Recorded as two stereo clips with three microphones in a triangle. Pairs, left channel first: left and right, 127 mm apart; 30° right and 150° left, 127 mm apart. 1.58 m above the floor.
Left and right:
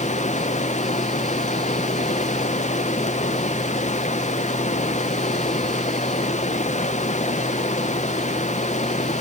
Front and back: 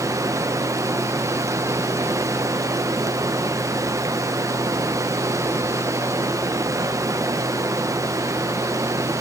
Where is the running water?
90° left, 1.0 m.